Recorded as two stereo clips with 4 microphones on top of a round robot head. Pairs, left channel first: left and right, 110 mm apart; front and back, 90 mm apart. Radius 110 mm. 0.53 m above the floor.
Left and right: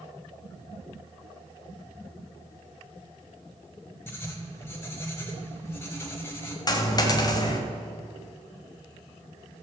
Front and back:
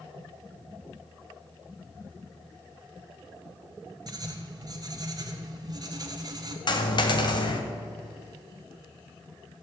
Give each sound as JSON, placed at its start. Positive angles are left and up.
{"t": 4.1, "sound": "writing", "azimuth_deg": 155, "distance_m": 2.0}
{"t": 6.7, "sound": "a dropped coin", "azimuth_deg": 35, "distance_m": 1.8}